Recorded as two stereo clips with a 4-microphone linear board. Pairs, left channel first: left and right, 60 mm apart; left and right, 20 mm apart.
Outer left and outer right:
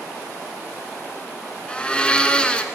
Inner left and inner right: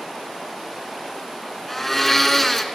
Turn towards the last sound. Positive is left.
turn(degrees=15)  # may be behind; listen again after turning